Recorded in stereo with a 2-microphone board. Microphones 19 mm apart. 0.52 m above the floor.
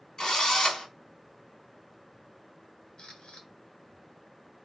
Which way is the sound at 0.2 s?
45° left (ahead or behind).